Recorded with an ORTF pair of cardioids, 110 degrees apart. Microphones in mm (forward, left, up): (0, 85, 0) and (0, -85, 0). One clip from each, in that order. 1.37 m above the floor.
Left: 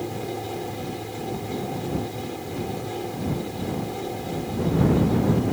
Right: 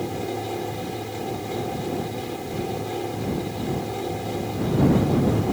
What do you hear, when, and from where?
0.0 s a fan: 15° right